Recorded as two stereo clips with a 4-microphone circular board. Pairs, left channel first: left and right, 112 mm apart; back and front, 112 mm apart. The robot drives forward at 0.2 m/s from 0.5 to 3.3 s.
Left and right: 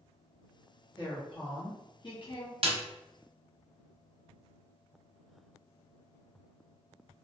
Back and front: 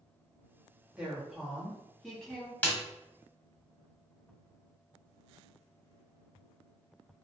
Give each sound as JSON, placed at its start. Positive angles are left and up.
{"t": 1.0, "sound": "a woman speaking", "azimuth_deg": 75, "distance_m": 1.0}
{"t": 2.6, "sound": "a snare drum", "azimuth_deg": -105, "distance_m": 0.5}